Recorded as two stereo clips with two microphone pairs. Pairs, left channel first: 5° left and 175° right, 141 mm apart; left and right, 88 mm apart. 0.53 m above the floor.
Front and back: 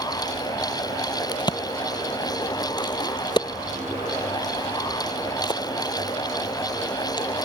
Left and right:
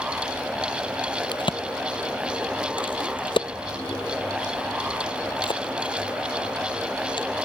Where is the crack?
65° left.